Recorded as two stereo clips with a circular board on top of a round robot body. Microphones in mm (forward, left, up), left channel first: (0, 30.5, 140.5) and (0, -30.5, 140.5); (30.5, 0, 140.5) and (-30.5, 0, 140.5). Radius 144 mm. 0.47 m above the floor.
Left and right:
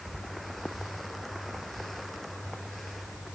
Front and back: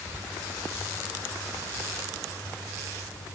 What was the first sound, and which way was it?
Only background noise.